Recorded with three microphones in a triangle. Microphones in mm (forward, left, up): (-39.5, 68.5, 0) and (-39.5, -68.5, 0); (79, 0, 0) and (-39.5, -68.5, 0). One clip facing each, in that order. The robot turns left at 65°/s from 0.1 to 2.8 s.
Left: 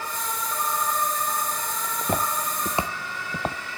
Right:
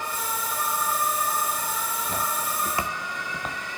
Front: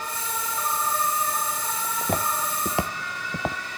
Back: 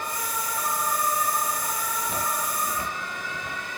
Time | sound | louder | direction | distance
1.8 | footsteps | left 7 dB, front 6 dB | 75° left | 2 m